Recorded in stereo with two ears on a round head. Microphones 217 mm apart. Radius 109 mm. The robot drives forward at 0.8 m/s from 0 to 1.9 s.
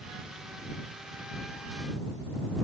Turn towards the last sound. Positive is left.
No sound to turn to.